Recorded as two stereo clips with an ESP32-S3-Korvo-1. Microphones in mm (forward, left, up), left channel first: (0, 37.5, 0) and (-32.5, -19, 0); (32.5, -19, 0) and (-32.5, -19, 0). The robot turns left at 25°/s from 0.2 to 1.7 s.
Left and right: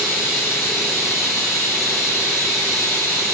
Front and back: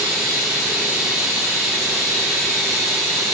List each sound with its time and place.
0.0 s running water: 125° left, 1.0 m; by 3.3 s 85° left, 1.0 m